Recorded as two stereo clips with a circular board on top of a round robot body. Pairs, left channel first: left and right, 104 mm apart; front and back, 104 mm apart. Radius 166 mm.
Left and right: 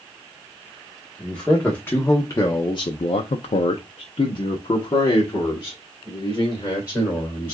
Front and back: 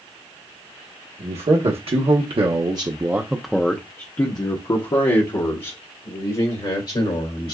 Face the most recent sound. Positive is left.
turn(degrees=25)